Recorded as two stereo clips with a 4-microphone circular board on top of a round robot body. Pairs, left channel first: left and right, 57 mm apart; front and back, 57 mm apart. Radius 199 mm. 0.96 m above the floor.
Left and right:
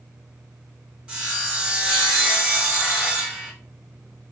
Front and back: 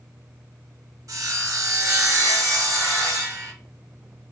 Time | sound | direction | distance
1.1 | sawing | 165° right | 1.9 m